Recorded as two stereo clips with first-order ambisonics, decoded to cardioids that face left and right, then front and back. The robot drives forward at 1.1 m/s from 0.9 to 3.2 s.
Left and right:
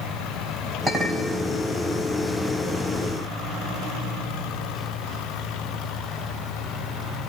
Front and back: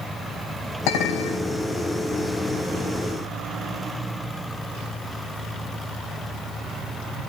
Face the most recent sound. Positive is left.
turn(degrees=-30)